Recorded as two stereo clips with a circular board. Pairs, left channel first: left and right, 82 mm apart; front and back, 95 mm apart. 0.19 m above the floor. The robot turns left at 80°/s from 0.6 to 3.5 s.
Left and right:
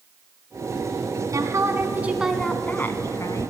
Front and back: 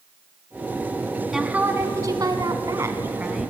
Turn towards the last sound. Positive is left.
turn(degrees=90)